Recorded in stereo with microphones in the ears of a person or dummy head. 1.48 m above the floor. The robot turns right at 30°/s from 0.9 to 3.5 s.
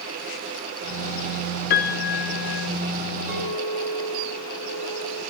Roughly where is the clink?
Centre.